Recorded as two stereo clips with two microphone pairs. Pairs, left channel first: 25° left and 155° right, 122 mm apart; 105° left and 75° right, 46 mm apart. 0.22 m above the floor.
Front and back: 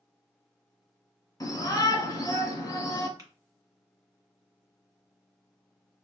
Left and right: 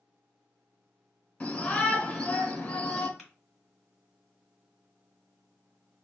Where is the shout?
55° left, 1.3 m.